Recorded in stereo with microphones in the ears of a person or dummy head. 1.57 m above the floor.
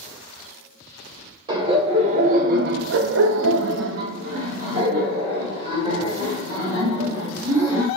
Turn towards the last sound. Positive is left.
turn(degrees=-20)  # may be behind; listen again after turning